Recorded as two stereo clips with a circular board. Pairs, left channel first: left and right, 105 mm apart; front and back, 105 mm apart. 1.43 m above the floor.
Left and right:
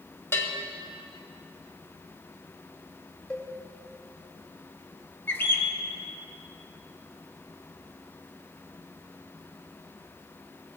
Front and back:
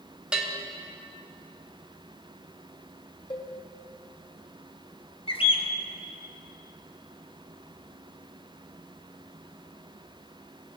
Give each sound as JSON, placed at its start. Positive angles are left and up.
{"t": 0.3, "sound": "a bell", "azimuth_deg": 110, "distance_m": 1.0}
{"t": 3.3, "sound": "a cowbell", "azimuth_deg": 10, "distance_m": 1.1}
{"t": 5.3, "sound": "a bird", "azimuth_deg": 20, "distance_m": 0.8}